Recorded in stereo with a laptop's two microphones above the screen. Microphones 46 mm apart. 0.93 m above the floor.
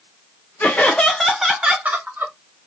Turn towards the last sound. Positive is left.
turn(degrees=-50)  # may be behind; listen again after turning